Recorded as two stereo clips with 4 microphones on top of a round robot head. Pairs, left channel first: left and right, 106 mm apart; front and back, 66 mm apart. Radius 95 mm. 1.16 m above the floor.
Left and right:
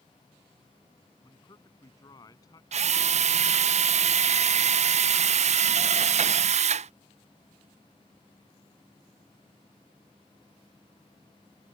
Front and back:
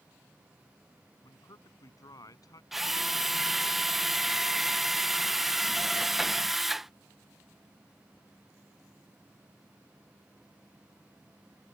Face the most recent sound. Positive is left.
turn(degrees=-95)